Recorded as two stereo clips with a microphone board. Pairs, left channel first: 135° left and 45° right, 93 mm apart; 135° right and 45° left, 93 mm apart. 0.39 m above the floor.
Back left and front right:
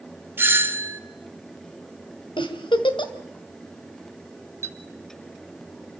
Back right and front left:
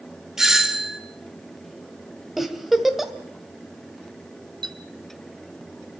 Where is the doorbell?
35° right, 1.4 m.